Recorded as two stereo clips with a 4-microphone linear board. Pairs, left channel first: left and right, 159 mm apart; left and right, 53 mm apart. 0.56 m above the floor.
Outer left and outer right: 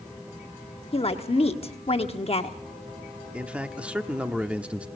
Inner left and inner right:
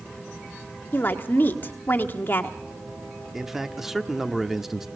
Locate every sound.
0.9 s a woman speaking: 40° left (ahead or behind), 1.2 m
3.3 s a man speaking: 10° right (ahead or behind), 0.9 m